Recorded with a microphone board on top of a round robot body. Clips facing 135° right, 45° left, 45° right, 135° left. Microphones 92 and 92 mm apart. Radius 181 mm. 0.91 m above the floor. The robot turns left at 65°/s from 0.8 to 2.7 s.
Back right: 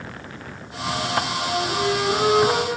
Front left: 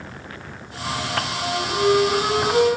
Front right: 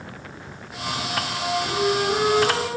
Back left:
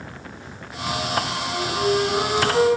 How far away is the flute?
About 9.5 m.